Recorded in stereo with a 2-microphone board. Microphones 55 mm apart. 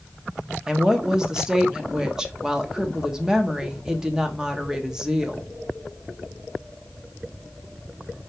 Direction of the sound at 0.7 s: 15° right (ahead or behind).